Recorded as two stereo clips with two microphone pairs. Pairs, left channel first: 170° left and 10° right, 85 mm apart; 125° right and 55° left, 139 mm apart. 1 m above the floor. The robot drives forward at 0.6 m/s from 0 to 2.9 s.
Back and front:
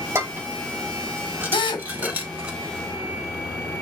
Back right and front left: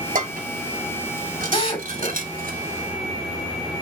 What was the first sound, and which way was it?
Dishes clattering, 45° left.